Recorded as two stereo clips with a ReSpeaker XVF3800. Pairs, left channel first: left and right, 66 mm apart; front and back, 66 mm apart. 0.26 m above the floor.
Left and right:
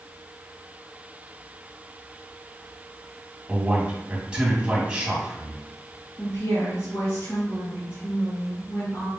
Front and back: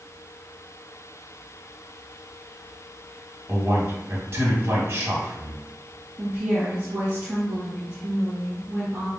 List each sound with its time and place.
3.5 s a man speaking: 160° right, 1.8 m
6.2 s a woman speaking: 130° left, 1.9 m